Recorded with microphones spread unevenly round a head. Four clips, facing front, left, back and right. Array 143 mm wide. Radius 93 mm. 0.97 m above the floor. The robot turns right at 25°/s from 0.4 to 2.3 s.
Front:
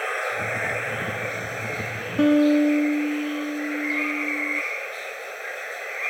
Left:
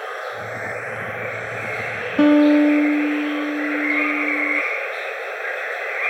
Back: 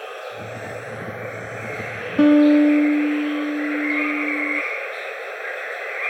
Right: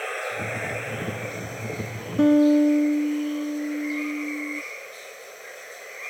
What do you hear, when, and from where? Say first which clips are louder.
0.0 s running water: left 2 dB, front 5 dB; 35° left; by 6.1 s 85° left
2.2 s a guitar: left 4 dB, back 5 dB; 170° right